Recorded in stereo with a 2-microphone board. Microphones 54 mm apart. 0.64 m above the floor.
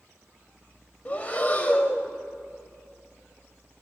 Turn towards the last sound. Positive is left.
turn(degrees=30)  # may be behind; listen again after turning